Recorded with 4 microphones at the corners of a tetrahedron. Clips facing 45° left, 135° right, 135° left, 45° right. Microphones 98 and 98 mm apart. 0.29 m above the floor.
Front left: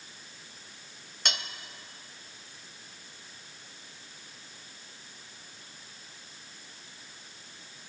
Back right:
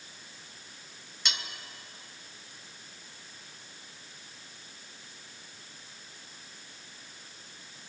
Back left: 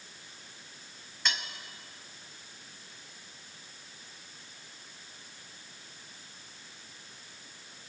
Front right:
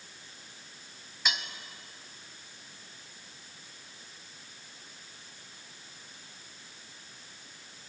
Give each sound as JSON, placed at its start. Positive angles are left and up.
{"t": 1.2, "sound": "cutlery clinking", "azimuth_deg": 35, "distance_m": 0.8}